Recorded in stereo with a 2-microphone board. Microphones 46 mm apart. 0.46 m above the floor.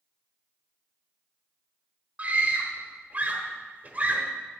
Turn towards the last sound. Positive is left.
turn(degrees=-35)  # may be behind; listen again after turning